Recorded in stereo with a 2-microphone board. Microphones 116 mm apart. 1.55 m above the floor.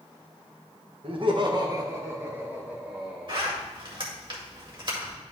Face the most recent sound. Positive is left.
turn(degrees=-50)  # may be behind; listen again after turning